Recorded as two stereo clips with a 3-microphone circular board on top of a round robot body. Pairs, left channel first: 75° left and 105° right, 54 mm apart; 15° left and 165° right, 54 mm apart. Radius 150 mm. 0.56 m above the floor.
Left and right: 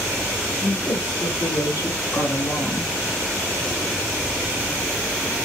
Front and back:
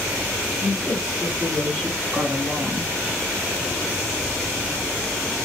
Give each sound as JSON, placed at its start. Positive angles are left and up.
{"t": 0.6, "sound": "a woman speaking", "azimuth_deg": 75, "distance_m": 2.5}